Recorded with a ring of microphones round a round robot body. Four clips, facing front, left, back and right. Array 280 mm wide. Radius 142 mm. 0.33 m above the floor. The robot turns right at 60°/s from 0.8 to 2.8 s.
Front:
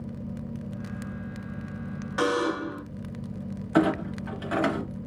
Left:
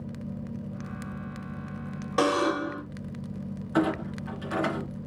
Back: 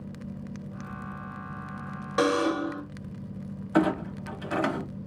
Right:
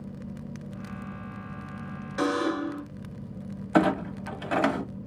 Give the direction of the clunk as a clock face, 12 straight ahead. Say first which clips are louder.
Right 3 dB, front 1 dB; 3 o'clock.